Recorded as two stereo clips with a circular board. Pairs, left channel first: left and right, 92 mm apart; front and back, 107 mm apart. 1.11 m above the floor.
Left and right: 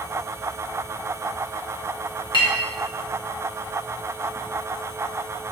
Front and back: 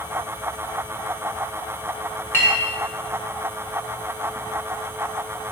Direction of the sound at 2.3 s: 65° left.